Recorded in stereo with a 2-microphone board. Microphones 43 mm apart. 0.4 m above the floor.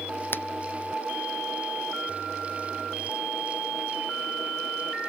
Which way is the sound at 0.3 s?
55° left (ahead or behind).